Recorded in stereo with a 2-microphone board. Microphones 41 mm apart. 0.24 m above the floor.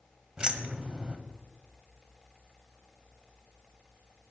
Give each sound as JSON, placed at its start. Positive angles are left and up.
{"t": 0.4, "sound": "keys jangling", "side_deg": -20, "distance_m": 0.6}